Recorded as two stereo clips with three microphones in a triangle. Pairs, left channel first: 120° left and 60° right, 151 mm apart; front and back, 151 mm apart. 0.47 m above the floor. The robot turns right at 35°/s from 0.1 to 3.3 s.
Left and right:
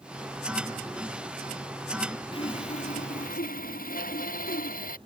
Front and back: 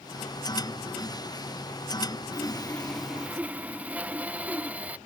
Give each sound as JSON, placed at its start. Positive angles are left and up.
{"t": 2.3, "sound": "sawing", "azimuth_deg": 65}